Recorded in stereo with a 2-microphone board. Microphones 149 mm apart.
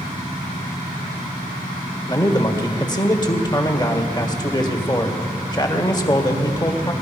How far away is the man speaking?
About 1.7 m.